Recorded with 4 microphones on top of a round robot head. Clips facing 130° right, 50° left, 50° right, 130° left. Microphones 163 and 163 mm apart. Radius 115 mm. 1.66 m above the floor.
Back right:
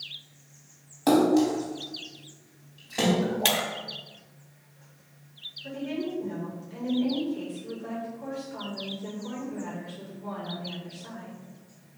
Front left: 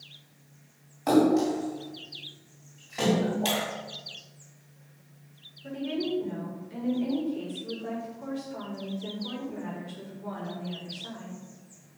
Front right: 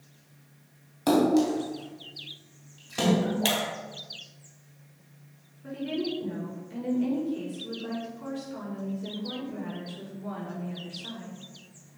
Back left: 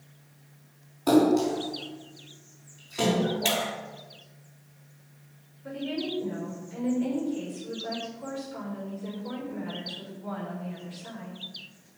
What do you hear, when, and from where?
1.1 s a splash: 70° right, 3 m
3.5 s breaking glass: 105° right, 1.2 m
5.6 s a woman speaking: 20° right, 5.5 m